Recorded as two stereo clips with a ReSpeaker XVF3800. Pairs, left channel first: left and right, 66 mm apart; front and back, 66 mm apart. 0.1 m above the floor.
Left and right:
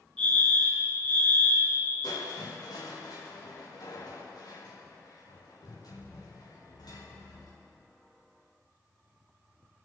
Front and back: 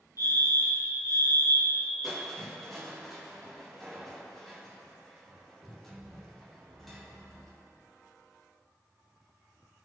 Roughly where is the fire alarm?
Ahead.